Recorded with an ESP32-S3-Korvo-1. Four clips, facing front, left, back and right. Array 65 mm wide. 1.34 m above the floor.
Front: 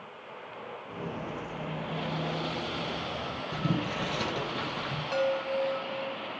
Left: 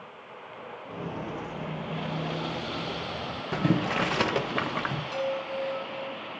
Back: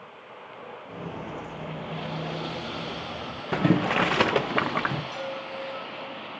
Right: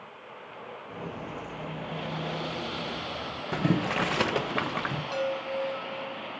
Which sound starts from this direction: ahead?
A chime, at 5.1 s.